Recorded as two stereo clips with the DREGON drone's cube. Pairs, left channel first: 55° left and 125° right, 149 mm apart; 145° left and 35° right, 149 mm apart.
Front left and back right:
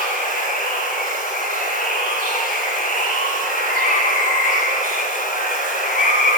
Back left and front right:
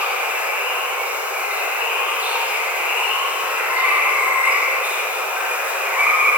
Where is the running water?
45° left, 1.2 m.